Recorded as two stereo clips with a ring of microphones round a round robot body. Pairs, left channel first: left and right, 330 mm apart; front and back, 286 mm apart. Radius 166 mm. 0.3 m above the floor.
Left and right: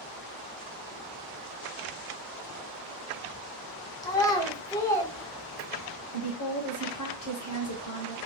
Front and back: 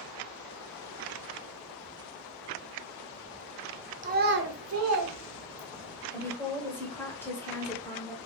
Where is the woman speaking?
80° left, 1.2 m.